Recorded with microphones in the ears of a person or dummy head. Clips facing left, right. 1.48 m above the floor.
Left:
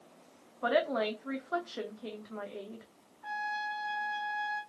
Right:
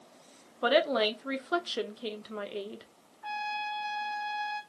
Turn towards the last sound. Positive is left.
turn(degrees=-35)  # may be behind; listen again after turning